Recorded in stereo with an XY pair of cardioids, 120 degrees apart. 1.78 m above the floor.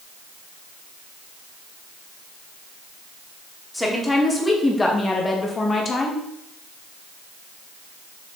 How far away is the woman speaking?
About 3 m.